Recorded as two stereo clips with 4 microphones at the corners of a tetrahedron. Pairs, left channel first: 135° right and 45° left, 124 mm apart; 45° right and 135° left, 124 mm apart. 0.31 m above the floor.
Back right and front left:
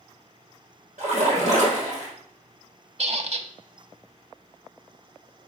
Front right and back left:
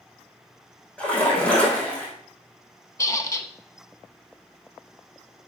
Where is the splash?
35° left, 3.5 m.